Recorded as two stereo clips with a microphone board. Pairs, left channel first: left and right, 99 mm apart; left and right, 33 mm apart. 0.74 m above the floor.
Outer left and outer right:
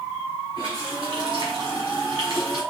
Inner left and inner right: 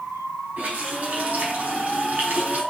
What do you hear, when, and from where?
0.6 s a running tap: 60° right (ahead or behind), 3.5 m